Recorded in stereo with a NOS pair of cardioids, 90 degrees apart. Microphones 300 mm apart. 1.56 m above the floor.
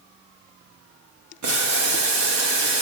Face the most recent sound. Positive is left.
turn(degrees=-65)